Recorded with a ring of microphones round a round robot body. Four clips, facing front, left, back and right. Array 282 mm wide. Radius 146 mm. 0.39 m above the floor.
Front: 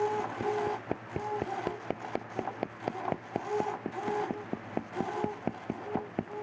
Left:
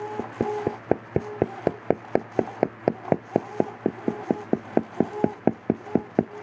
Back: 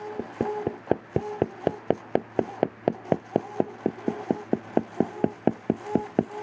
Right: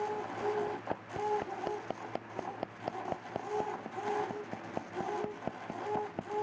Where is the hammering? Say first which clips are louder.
Left 7 dB, back 3 dB; 125° left.